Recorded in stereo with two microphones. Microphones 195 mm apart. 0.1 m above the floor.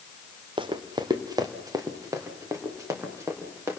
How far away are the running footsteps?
About 1.2 m.